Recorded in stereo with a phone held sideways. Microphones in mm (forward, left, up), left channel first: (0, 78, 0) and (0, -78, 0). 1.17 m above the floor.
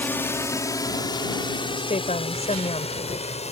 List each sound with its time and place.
0.0 s a drone: 10° left (ahead or behind); by 3.5 s 45° left (ahead or behind)
1.8 s a woman speaking: 45° left (ahead or behind)